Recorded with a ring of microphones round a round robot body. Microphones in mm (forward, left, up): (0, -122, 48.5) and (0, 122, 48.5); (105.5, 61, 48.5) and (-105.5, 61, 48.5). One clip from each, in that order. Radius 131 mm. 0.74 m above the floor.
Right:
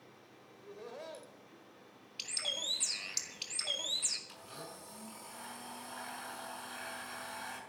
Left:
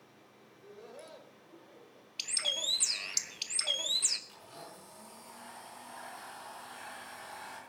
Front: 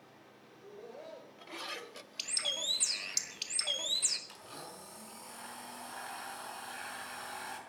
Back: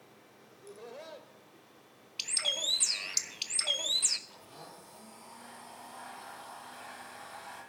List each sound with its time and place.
0.5 s laughter: 170° right, 3.5 m
2.2 s a bird: 135° left, 1.3 m
4.3 s a blender: 15° right, 5.5 m